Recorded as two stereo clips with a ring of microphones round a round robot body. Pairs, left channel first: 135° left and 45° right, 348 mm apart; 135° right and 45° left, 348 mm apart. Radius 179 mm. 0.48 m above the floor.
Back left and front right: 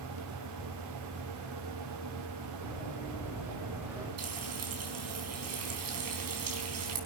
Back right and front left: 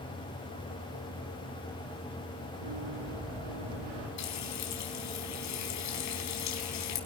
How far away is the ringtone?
No ringtone in this recording.